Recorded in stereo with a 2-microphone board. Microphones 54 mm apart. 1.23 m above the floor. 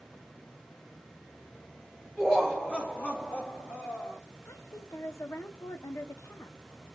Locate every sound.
2.2 s laughter: centre (ahead or behind), 0.9 m; by 4.2 s 55° left (ahead or behind), 1.6 m
4.5 s a woman speaking: 70° left (ahead or behind), 0.5 m